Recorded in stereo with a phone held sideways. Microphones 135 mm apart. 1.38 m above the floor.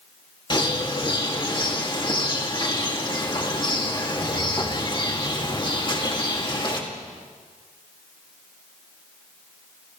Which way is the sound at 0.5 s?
35° left (ahead or behind).